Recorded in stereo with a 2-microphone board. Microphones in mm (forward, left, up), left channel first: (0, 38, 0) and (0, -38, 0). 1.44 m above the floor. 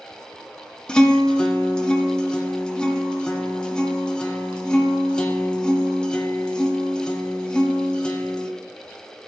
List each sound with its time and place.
0.9 s a guitar: 10° left (ahead or behind), 1.4 m